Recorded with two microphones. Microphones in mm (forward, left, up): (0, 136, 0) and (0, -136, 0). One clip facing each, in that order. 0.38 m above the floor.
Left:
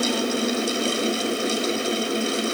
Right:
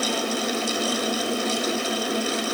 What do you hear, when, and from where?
Only background noise.